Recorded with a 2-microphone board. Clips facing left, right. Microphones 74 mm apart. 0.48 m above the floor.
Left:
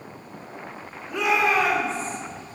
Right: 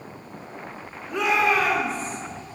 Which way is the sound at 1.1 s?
Centre (ahead or behind).